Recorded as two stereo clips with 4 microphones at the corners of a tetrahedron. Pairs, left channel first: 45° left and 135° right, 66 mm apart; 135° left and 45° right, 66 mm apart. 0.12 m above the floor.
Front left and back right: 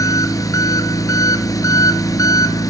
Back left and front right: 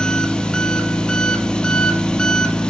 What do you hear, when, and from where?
0.0 s an engine running: 60° left, 0.8 m